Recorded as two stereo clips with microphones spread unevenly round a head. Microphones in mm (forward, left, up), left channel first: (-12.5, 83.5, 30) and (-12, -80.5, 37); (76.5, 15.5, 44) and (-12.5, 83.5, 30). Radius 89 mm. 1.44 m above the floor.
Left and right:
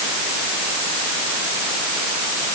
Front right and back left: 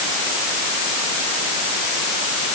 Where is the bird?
I don't hear a bird.